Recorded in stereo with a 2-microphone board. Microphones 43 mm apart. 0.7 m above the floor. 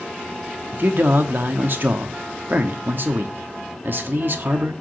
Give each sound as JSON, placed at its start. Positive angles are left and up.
{"t": 0.7, "sound": "a man speaking", "side_deg": -55, "distance_m": 1.0}